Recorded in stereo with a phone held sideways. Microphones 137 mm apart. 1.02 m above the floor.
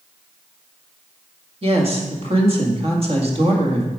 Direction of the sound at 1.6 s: 45° right (ahead or behind).